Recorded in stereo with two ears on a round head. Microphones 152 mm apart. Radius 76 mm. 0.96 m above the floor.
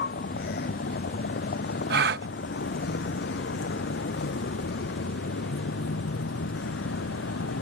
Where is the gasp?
65° right (ahead or behind).